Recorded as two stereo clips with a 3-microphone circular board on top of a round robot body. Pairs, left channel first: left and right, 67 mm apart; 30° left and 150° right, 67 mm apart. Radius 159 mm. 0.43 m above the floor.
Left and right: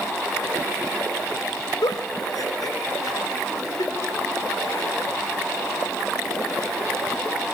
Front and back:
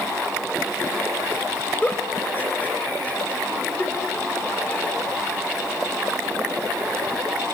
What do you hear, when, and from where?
1.8 s a giggle: 95° left, 2.5 m